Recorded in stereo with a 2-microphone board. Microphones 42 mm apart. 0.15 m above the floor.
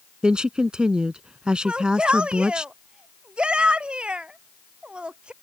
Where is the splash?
I don't hear a splash.